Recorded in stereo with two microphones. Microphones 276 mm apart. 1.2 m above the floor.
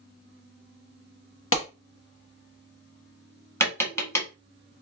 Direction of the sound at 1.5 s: 50° left (ahead or behind).